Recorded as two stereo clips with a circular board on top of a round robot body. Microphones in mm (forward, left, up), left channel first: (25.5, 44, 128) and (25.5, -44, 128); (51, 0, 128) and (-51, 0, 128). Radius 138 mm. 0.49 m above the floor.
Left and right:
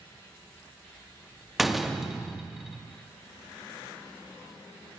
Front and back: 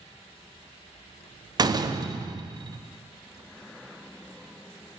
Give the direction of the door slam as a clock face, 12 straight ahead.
6 o'clock.